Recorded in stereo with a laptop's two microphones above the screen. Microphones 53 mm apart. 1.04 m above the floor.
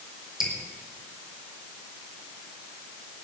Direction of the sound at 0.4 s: 15° right (ahead or behind).